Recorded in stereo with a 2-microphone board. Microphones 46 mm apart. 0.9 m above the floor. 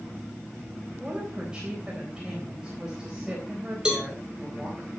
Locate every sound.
1.0 s a woman speaking: 15° right (ahead or behind), 3.5 m
3.9 s a cowbell: 15° right (ahead or behind), 4 m